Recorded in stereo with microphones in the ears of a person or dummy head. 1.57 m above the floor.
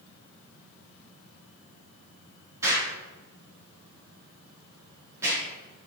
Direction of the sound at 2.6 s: 15° right (ahead or behind).